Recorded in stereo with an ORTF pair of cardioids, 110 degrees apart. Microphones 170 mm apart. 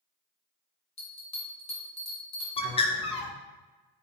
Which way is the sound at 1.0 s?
40° left.